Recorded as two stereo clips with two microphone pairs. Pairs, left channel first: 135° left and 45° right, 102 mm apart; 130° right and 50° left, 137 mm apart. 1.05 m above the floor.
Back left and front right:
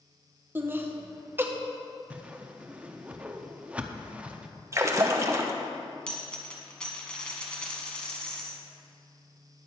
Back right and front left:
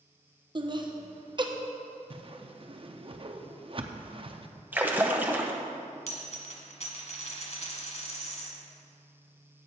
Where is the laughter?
15° left, 0.9 m.